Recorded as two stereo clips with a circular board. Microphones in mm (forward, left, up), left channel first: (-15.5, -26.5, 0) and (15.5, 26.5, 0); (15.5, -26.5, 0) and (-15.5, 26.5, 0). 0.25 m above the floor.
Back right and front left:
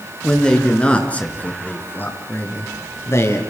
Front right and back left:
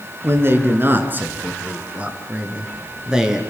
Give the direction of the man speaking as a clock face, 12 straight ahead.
7 o'clock.